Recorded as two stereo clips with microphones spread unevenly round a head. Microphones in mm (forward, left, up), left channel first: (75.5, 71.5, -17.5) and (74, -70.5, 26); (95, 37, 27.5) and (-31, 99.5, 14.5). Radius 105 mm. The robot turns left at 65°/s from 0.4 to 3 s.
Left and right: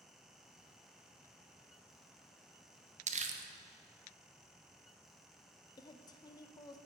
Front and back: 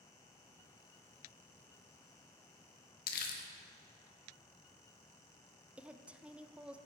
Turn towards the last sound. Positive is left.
turn(degrees=80)